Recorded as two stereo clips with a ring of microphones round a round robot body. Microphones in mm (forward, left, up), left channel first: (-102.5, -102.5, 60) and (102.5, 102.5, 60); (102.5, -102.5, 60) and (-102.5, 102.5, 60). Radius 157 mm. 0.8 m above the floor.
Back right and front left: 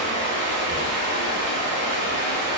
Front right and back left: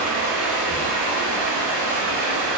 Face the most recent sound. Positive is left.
turn(degrees=5)